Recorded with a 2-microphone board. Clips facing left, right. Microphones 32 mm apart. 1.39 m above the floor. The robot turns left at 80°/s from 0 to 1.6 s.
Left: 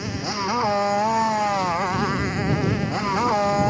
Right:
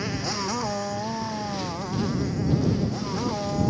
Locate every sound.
0.0 s a motorcycle: 170° right; by 3.7 s 65° left